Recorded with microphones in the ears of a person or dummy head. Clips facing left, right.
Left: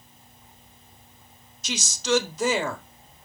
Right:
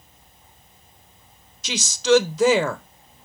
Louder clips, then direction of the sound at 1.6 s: Right 7 dB; 65° right (ahead or behind).